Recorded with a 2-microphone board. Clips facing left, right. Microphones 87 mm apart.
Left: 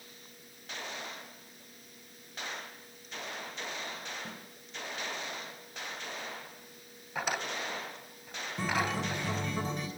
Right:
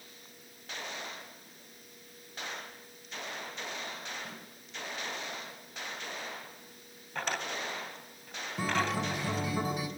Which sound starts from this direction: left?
A snare drum, at 4.2 s.